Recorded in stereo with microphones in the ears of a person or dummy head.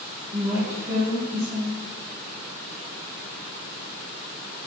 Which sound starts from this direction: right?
A woman speaking, at 0.3 s.